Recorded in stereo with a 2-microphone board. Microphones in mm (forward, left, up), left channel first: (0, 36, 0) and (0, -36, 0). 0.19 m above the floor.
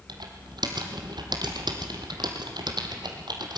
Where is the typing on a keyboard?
80° right, 2.5 m.